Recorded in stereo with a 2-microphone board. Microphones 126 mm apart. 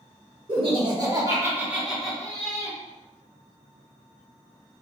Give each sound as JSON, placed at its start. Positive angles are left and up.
{"t": 0.5, "sound": "laughter", "side_deg": -45, "distance_m": 1.2}